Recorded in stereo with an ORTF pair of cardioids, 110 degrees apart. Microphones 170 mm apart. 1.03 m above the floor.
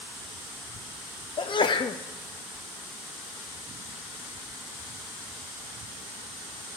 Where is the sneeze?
30° left, 0.9 m.